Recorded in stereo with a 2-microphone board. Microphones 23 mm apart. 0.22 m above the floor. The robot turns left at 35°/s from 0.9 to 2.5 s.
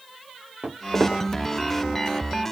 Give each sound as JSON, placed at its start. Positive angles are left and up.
{"t": 0.6, "sound": "footsteps", "side_deg": -85, "distance_m": 1.8}